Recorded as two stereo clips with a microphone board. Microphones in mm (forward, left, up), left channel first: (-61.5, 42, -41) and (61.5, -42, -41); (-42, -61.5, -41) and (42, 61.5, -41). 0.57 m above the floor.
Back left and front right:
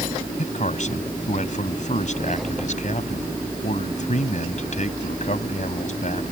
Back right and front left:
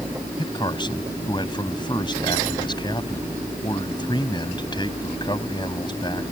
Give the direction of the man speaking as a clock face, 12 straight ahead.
6 o'clock.